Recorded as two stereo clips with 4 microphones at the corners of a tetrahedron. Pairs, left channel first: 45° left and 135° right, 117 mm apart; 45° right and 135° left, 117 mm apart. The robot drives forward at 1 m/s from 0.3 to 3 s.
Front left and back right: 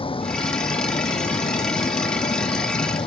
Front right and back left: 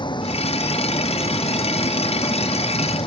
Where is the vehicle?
5° left.